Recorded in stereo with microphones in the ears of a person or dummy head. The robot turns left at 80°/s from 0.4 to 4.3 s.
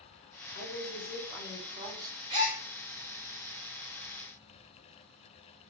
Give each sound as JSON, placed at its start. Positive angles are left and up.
{"t": 0.6, "sound": "a woman speaking", "azimuth_deg": 70, "distance_m": 1.3}
{"t": 2.3, "sound": "a gasp", "side_deg": -20, "distance_m": 1.0}